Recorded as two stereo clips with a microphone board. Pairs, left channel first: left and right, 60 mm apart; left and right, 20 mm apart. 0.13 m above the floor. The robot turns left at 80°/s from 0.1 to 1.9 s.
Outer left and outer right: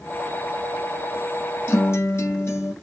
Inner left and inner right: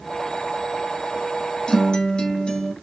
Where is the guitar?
40° left (ahead or behind), 1.3 m; by 2.7 s 50° left (ahead or behind), 1.3 m.